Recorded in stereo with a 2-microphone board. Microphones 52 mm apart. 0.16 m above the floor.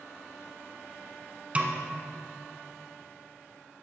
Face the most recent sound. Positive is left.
turn(degrees=-25)  # may be behind; listen again after turning